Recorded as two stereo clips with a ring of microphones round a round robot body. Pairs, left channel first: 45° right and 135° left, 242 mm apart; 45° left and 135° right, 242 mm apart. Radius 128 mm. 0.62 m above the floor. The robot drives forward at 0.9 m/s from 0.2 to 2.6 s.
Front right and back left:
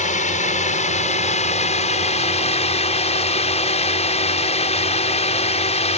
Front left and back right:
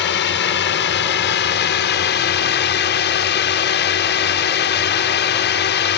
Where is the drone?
10° left; by 6.0 s 15° left.